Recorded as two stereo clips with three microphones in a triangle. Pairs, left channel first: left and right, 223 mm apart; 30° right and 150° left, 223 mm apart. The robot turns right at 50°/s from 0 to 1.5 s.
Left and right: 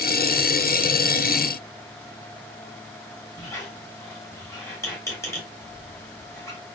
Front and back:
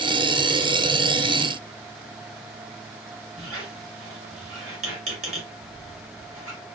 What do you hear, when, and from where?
3.4 s a squeak: 165° left, 1.1 m